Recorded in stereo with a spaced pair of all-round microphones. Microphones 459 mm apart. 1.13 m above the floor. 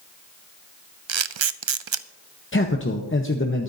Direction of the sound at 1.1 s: 80° right.